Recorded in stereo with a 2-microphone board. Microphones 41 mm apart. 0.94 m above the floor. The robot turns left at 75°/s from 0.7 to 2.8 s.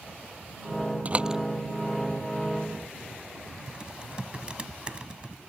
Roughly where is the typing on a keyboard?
Right.